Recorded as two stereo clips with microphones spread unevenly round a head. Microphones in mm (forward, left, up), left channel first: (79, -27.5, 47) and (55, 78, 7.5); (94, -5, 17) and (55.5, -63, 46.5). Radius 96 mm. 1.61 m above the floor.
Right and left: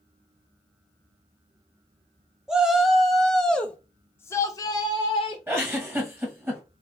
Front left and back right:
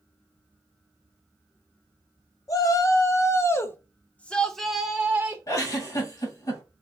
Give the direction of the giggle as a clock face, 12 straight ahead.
11 o'clock.